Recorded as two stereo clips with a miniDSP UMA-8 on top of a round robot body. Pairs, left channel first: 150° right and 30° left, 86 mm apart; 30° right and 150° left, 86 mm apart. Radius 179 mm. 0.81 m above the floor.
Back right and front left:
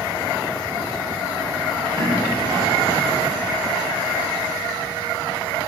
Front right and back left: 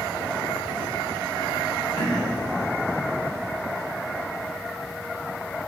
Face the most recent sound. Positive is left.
turn(degrees=10)